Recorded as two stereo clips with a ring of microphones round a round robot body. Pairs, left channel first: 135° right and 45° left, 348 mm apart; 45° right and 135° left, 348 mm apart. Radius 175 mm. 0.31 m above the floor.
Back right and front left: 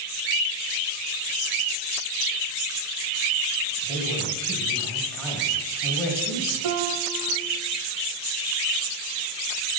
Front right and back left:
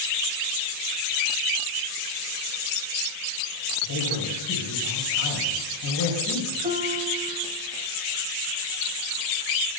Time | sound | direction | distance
3.8 | a man speaking | 50° right | 2 m
6.6 | a piano | 65° left | 0.7 m